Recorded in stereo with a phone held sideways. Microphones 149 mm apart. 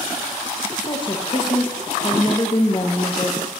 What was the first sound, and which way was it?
A woman speaking, 35° left (ahead or behind).